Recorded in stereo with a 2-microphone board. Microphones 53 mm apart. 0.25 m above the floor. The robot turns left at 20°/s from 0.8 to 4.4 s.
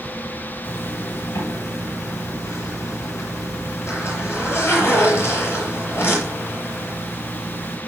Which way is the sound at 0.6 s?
115° left.